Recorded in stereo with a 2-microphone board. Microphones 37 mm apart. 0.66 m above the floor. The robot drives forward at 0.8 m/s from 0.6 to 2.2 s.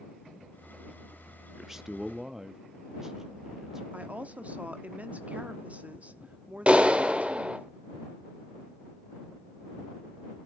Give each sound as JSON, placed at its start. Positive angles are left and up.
{"t": 1.5, "sound": "a man speaking", "side_deg": -10, "distance_m": 0.7}
{"t": 3.9, "sound": "a woman speaking", "side_deg": -40, "distance_m": 0.9}
{"t": 6.7, "sound": "a clap", "side_deg": -35, "distance_m": 1.4}